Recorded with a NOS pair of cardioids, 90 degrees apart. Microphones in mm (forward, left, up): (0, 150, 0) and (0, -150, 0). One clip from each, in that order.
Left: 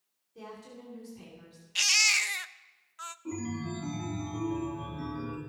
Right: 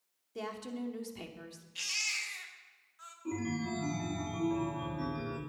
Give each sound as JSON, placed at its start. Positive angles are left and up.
{"t": 0.3, "sound": "a woman speaking", "azimuth_deg": -70, "distance_m": 2.5}
{"t": 1.8, "sound": "a baby crying", "azimuth_deg": 60, "distance_m": 0.6}
{"t": 3.2, "sound": "a chime", "azimuth_deg": 0, "distance_m": 2.5}